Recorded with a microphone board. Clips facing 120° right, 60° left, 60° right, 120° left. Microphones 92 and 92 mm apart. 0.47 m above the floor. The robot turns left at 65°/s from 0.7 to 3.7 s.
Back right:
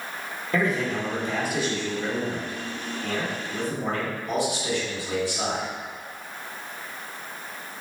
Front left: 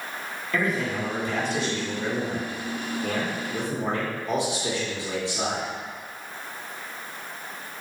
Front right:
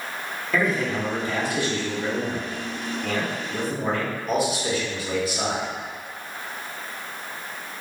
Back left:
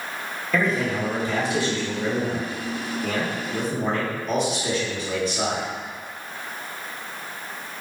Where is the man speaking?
145° right, 1.4 m; by 5.7 s 20° left, 1.4 m.